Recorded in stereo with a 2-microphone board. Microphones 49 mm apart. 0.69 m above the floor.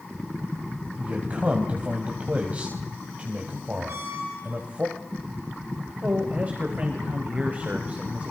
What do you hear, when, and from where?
1.0 s a man speaking: 30° right (ahead or behind), 3.5 m
3.9 s a squeak: 55° right (ahead or behind), 6.5 m
6.0 s a man speaking: 30° right (ahead or behind), 3 m